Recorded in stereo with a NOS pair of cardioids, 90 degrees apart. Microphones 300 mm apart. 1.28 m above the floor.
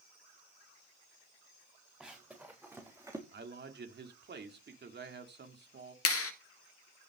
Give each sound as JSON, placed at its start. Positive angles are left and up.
{"t": 2.0, "sound": "running footsteps", "azimuth_deg": -5, "distance_m": 5.5}
{"t": 3.3, "sound": "a man speaking", "azimuth_deg": -35, "distance_m": 3.0}
{"t": 6.0, "sound": "a clap", "azimuth_deg": 50, "distance_m": 1.8}